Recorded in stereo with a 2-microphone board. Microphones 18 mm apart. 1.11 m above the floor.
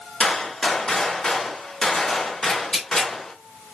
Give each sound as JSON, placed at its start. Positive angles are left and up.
{"t": 0.2, "sound": "a gunshot", "side_deg": 55, "distance_m": 1.1}
{"t": 2.5, "sound": "tearing paper", "side_deg": 60, "distance_m": 1.5}